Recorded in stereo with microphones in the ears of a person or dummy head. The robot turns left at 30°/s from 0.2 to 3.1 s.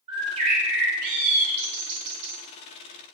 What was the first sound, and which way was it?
A bird, 40° right.